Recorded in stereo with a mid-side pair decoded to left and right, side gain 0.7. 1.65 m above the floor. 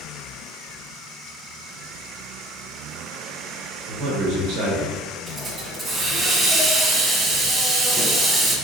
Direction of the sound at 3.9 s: 65° right.